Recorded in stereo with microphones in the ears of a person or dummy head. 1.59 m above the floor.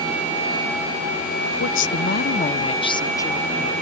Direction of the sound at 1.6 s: 85° left.